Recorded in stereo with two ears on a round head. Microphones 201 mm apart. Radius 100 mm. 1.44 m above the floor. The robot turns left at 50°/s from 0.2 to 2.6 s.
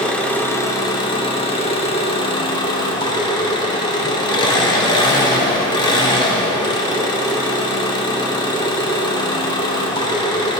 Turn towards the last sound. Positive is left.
turn(degrees=20)  # may be behind; listen again after turning